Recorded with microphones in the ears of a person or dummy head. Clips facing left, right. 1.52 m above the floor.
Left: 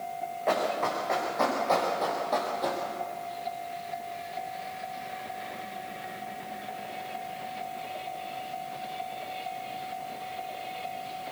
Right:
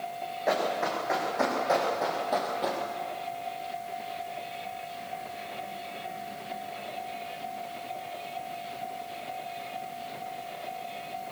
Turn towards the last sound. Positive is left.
turn(degrees=-10)  # may be behind; listen again after turning